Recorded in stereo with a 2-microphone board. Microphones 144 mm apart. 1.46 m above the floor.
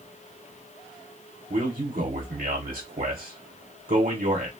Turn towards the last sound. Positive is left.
turn(degrees=-75)  # may be behind; listen again after turning